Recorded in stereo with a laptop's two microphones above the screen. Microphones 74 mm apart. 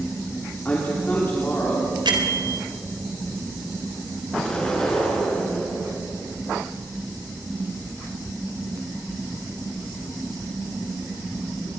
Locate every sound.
0.7 s a man speaking: 25° left (ahead or behind), 2.5 m
2.0 s a bell: 85° right, 3.5 m
4.3 s an explosion: 10° left (ahead or behind), 7 m